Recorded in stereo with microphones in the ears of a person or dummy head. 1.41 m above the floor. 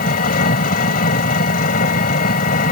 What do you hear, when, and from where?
0.0 s an engine running: 45° left (ahead or behind)